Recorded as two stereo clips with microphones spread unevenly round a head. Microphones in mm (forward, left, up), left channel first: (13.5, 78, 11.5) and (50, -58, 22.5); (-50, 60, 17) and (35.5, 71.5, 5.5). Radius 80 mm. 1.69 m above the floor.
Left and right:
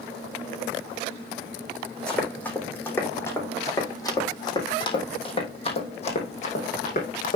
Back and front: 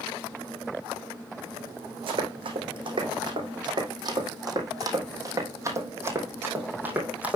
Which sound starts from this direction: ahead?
Running footsteps, at 2.1 s.